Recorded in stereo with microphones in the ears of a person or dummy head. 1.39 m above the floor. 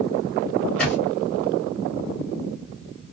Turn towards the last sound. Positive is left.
turn(degrees=5)  # may be behind; listen again after turning